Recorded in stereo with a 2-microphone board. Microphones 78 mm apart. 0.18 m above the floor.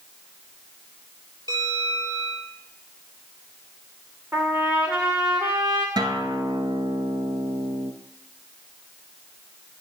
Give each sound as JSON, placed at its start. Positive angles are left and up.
{"t": 1.5, "sound": "a bell", "side_deg": -65, "distance_m": 3.5}
{"t": 4.3, "sound": "a trumpet", "side_deg": -30, "distance_m": 2.0}
{"t": 6.0, "sound": "a guitar", "side_deg": -70, "distance_m": 1.0}